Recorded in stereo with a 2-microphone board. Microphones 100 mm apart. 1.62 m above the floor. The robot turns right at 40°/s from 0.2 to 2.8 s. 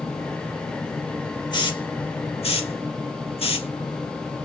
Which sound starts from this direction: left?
A hiss, at 1.5 s.